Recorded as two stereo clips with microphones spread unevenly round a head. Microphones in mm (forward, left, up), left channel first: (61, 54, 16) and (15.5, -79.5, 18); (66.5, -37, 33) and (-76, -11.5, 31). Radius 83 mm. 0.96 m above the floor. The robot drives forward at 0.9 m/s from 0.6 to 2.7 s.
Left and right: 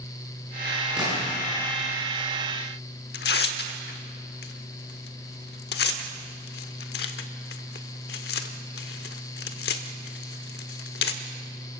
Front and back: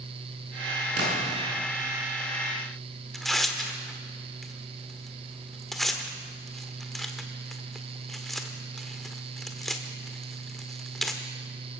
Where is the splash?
165° left, 9 m.